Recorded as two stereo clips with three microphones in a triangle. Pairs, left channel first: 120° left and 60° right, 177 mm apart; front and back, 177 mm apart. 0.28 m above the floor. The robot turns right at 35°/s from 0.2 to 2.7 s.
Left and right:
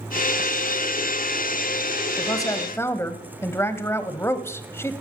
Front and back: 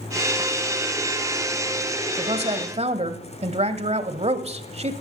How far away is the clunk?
No clunk in this recording.